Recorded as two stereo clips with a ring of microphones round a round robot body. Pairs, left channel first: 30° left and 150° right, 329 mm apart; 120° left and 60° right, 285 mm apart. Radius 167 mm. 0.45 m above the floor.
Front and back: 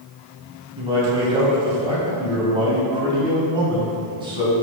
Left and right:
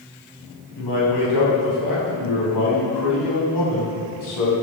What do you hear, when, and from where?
0.8 s a man speaking: 135° left, 4 m